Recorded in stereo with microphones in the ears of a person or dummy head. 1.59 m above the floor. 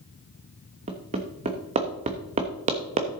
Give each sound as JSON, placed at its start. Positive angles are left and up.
{"t": 0.9, "sound": "hammering", "side_deg": -30, "distance_m": 1.3}